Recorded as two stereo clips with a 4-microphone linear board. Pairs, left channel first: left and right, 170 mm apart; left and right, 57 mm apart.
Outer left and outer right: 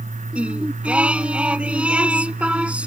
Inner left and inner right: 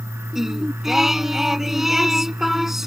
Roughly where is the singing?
Centre.